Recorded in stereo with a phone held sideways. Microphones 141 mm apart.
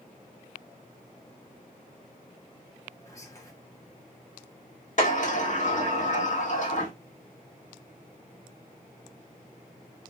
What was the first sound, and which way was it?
Whispering, 20° left (ahead or behind).